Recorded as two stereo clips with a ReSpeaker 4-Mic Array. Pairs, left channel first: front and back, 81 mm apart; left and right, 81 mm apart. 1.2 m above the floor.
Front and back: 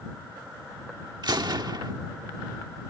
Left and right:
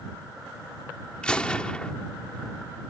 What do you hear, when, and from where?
1.2 s a gunshot: 165° left